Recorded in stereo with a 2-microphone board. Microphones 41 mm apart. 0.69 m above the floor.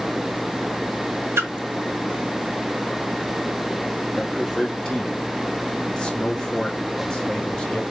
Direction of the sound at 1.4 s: 80° right.